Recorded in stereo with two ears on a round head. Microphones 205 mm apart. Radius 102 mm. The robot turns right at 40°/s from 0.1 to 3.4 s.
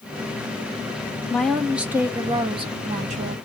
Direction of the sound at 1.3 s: 170° left.